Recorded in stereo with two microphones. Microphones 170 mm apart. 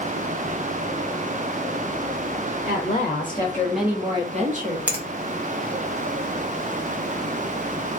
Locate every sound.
2.7 s a woman speaking: 45° left (ahead or behind), 1.2 m; by 4.8 s 60° right (ahead or behind), 1.0 m
4.9 s a finger snap: 10° right (ahead or behind), 0.7 m